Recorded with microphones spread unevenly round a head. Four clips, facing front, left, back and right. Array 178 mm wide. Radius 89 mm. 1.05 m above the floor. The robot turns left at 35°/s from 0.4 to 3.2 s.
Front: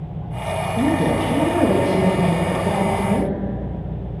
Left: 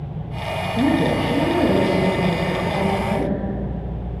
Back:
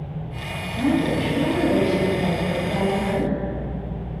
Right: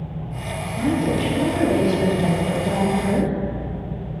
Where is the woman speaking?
55° left, 1.0 m; by 3.4 s 30° right, 1.0 m.